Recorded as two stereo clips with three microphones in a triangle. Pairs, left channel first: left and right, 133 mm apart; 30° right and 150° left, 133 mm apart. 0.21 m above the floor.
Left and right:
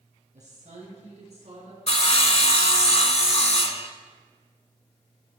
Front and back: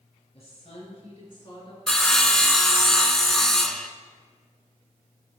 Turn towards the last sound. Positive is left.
turn(degrees=55)